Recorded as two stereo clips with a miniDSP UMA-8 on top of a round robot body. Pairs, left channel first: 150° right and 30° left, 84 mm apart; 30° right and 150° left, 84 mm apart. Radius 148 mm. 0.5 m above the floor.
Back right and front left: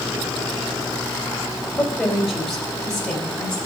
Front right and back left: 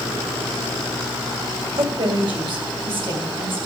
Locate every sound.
1.8 s a woman speaking: 120° left, 2.5 m; by 3.6 s 130° left, 4 m